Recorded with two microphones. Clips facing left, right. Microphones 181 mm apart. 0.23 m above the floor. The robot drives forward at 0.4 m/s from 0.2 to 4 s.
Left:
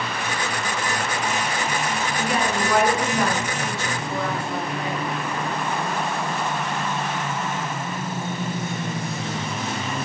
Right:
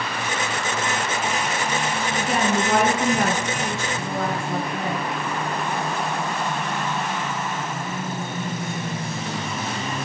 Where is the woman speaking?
40° right (ahead or behind), 2.5 m; by 5.0 s 50° right (ahead or behind), 2 m.